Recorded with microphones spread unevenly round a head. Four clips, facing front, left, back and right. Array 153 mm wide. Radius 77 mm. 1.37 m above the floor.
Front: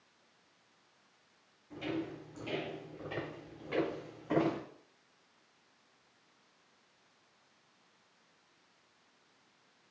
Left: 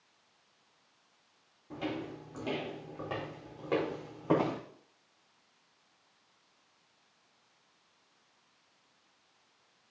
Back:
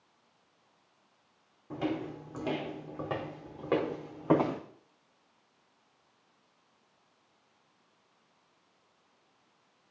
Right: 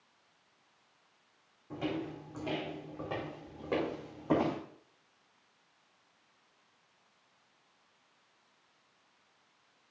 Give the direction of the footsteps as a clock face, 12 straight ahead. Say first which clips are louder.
Right 1 dB, back 4 dB; 6 o'clock.